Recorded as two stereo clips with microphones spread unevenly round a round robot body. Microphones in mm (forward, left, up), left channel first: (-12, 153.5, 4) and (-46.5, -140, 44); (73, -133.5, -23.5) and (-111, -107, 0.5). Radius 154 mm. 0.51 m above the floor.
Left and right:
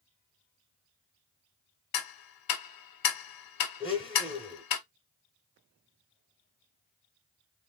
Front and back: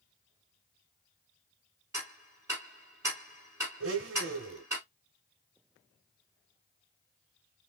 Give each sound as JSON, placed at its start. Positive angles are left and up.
{"t": 1.9, "sound": "ticking", "azimuth_deg": 100, "distance_m": 0.6}
{"t": 3.8, "sound": "a blender", "azimuth_deg": 155, "distance_m": 0.7}